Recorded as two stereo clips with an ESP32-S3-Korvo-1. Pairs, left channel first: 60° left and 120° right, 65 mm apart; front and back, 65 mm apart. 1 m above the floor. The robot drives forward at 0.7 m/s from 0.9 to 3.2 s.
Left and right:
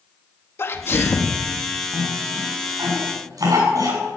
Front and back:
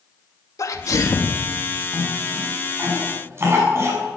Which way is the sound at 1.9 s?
125° right.